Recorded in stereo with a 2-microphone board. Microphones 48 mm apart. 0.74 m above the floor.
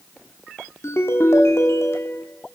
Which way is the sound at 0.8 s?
70° left (ahead or behind).